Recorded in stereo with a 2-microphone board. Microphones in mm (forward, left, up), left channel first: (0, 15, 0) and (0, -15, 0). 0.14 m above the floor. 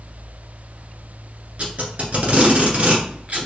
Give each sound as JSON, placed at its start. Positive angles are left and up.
{"t": 1.6, "sound": "tape being pulled", "side_deg": -45, "distance_m": 1.7}